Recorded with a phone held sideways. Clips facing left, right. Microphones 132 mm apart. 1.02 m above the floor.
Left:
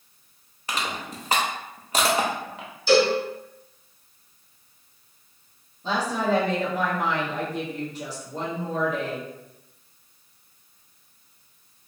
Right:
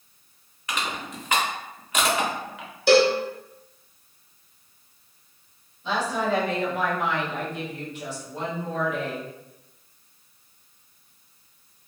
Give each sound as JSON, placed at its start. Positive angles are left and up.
{"t": 0.7, "sound": "crushing", "side_deg": 35, "distance_m": 0.6}
{"t": 2.9, "sound": "a cowbell", "side_deg": -65, "distance_m": 0.7}
{"t": 5.8, "sound": "a woman speaking", "side_deg": 35, "distance_m": 1.2}